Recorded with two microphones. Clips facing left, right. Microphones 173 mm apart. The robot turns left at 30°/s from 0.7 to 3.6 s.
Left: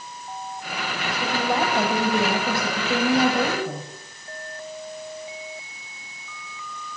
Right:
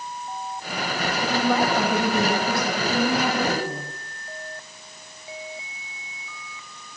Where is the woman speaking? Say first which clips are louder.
Right 2 dB; 175° left, 6 m; by 3.9 s 100° left, 6 m.